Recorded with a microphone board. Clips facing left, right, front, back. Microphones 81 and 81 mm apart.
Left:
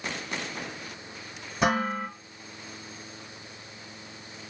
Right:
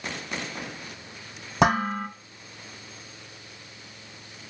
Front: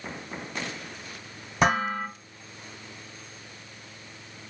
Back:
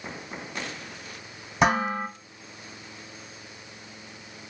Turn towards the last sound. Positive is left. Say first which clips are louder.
# right 3 dB, back 1 dB
turn(degrees=-90)